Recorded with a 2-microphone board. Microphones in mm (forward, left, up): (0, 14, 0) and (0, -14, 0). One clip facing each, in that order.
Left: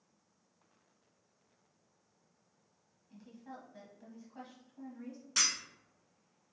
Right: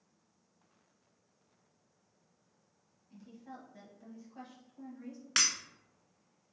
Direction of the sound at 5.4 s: 65° right (ahead or behind).